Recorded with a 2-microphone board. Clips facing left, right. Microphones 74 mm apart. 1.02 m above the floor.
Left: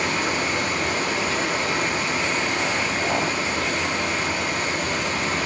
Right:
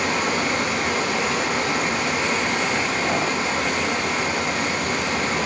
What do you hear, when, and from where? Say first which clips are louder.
0.0 s running water: right 2 dB; 70° right (ahead or behind), 7.5 m